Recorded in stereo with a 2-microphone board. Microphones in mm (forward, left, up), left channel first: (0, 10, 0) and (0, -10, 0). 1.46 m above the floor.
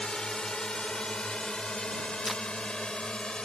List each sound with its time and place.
0.0 s a drone: 45° left (ahead or behind); by 3.4 s 50° left (ahead or behind)
2.2 s tape being pulled: centre (ahead or behind)